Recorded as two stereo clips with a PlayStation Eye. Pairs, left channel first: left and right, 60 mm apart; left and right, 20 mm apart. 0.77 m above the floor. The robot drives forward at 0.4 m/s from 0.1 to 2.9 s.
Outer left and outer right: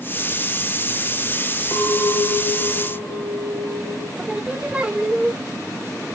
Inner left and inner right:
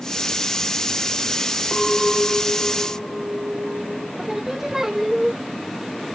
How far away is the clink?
About 2 m.